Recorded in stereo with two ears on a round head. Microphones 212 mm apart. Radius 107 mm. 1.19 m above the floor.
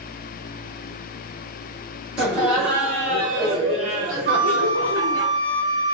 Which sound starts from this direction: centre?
Laughter, at 2.2 s.